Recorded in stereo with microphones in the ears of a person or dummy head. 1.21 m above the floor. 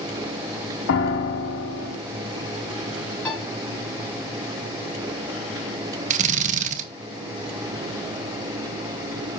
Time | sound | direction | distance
0.9 | a piano | 75° left (ahead or behind) | 3.5 m
3.2 | a piano | 5° left (ahead or behind) | 7 m
6.1 | a drill | 40° right (ahead or behind) | 1.7 m